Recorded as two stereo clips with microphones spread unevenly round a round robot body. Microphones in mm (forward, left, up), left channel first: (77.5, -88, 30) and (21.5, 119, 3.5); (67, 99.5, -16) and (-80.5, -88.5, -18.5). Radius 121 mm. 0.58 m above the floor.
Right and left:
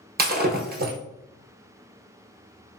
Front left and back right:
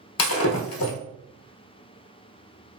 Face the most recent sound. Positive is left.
turn(degrees=60)